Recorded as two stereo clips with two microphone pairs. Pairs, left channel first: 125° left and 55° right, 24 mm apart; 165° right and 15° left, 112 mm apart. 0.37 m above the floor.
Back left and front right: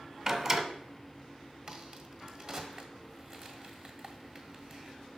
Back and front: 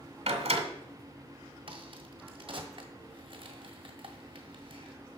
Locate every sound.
0.3 s a door slam: 5° left, 1.4 m
1.7 s a crack: 5° right, 1.5 m